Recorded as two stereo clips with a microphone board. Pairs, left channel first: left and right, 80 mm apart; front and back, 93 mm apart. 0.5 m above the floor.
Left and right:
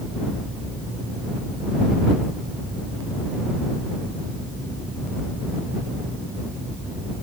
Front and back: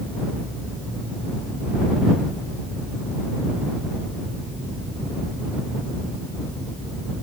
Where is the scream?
No scream in this recording.